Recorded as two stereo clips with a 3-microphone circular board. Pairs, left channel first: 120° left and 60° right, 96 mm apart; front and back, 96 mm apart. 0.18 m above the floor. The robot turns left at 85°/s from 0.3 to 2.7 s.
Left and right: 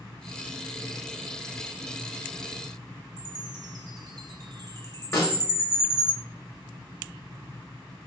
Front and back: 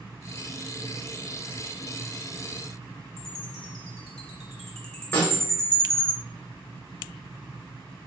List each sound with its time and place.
3.2 s a chime: 80° right, 1.5 m
5.1 s a snare drum: 65° left, 1.7 m